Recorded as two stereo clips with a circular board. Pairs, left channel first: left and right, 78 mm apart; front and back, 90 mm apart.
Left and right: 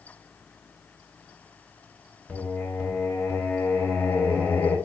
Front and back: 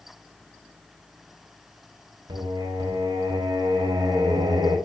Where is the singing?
145° left, 2.5 m.